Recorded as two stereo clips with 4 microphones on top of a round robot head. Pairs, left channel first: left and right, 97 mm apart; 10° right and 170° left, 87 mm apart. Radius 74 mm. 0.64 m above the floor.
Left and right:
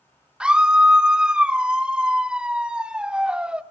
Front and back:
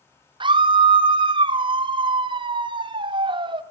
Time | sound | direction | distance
0.4 | a scream | 170° right | 1.5 m